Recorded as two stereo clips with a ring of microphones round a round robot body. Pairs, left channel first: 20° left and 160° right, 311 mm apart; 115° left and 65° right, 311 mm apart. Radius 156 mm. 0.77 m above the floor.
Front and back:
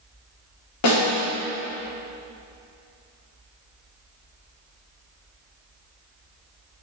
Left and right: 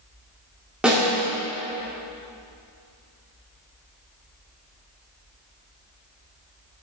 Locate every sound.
0.8 s a snare drum: 20° left, 2.5 m